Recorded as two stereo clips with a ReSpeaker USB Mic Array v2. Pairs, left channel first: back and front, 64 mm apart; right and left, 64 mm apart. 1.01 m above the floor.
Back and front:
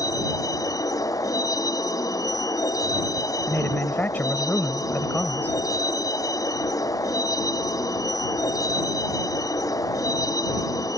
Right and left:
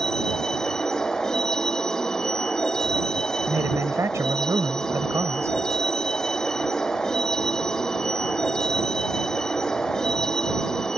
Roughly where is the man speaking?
Behind left.